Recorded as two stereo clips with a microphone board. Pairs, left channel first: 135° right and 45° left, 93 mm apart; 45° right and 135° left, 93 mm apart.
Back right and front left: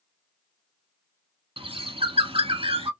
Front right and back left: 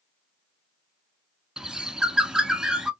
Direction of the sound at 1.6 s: 50° left.